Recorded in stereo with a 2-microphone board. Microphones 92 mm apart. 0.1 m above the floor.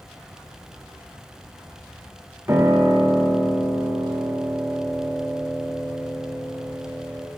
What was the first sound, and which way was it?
A piano, 30° right (ahead or behind).